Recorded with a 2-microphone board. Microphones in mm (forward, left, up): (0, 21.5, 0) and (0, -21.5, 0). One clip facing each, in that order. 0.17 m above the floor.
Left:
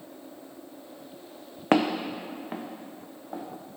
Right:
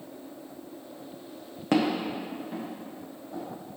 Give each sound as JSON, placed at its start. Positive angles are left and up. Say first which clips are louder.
{"t": 1.7, "sound": "footsteps", "louder": "left 2 dB", "side_deg": 50, "distance_m": 0.6}